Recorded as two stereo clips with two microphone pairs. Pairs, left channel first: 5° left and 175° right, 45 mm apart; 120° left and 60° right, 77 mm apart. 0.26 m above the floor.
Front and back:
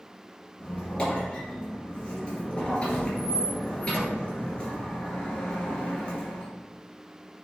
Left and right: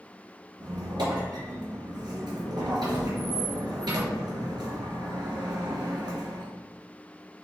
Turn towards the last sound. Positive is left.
turn(degrees=-60)